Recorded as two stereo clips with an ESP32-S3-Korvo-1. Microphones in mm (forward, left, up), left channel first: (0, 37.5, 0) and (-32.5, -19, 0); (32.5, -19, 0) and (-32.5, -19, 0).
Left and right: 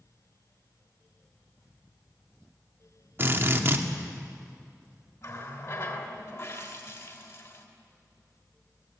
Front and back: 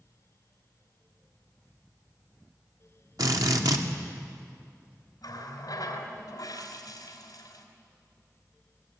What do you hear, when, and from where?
3.2 s a drill: 175° right, 1.8 m
5.2 s a running tap: 20° left, 3.5 m